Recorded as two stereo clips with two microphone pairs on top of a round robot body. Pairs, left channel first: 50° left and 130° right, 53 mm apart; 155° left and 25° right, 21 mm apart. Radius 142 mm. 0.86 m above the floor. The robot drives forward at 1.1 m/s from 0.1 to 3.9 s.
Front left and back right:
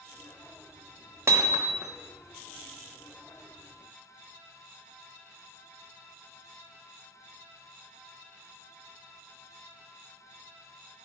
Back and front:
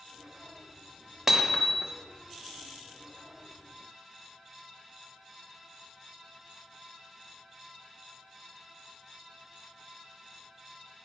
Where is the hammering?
95° right, 1.1 m; by 1.9 s 125° right, 1.4 m.